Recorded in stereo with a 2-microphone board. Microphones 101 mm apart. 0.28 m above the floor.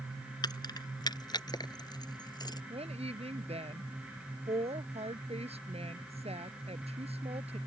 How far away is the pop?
I don't hear a pop.